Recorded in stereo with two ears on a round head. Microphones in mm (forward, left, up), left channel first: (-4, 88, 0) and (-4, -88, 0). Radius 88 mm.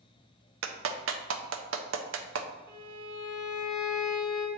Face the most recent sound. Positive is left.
turn(degrees=-25)  # may be behind; listen again after turning